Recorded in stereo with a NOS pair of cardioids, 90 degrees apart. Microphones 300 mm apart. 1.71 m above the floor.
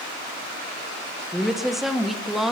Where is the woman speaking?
Straight ahead, 1.5 m.